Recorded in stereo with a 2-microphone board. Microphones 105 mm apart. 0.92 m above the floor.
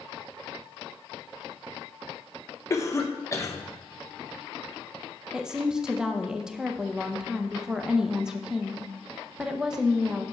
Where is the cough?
25° left (ahead or behind), 1.0 m.